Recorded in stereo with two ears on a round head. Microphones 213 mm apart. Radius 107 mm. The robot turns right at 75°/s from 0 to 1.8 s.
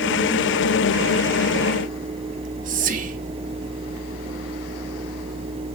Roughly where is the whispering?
Right.